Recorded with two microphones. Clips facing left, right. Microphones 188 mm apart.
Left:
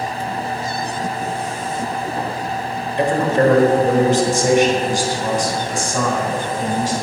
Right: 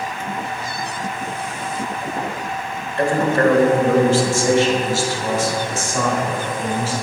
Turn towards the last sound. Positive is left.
turn(degrees=15)  # may be behind; listen again after turning